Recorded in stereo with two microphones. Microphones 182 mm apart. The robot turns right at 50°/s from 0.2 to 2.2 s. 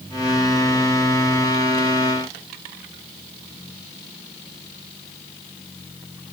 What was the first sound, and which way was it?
Only background noise.